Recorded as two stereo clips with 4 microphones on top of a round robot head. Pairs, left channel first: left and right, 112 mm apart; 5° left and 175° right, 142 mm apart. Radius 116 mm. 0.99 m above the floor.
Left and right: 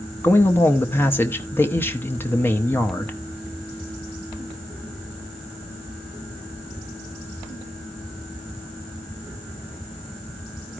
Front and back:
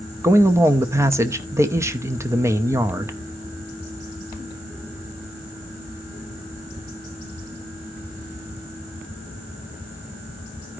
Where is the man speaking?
140° left, 0.8 m.